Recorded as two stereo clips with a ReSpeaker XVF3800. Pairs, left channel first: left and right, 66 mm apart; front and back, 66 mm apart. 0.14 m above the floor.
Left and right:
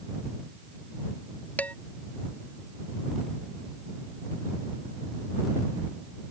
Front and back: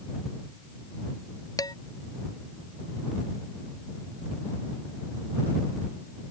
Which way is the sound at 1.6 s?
25° left.